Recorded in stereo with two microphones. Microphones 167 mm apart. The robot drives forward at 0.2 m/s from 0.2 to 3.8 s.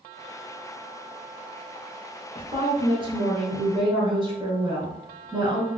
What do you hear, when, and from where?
2.4 s a woman speaking: 30° right (ahead or behind), 1.3 m; by 5.7 s 25° right (ahead or behind), 1.3 m